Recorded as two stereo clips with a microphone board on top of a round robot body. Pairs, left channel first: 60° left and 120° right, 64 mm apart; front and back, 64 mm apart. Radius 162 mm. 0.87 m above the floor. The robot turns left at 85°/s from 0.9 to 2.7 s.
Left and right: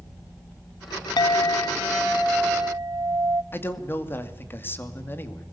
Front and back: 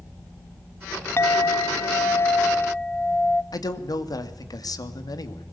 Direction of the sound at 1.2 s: 55° left.